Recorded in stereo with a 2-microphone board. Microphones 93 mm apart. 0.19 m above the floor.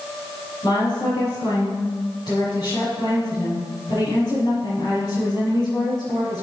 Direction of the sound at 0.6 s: 40° left (ahead or behind).